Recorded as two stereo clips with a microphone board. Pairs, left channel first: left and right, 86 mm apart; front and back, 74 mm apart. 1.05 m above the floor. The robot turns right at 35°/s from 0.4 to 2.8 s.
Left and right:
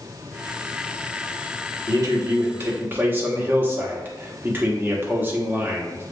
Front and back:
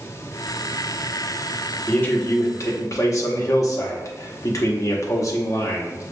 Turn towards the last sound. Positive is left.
turn(degrees=-30)